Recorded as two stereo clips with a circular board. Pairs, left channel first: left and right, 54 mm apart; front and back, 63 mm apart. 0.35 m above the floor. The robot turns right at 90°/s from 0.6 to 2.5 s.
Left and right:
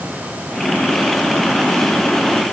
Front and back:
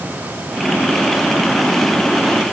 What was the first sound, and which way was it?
Only background noise.